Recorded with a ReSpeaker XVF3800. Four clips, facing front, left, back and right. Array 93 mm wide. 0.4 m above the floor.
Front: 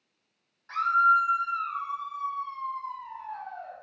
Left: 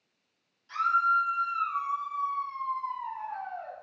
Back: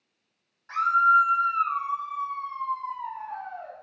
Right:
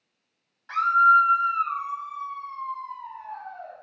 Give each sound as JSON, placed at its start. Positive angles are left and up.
{"t": 0.7, "sound": "a scream", "azimuth_deg": -100, "distance_m": 2.0}